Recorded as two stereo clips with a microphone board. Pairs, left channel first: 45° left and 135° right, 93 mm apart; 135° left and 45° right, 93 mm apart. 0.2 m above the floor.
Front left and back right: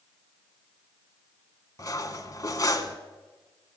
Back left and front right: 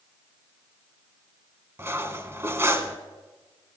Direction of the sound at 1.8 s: 10° left.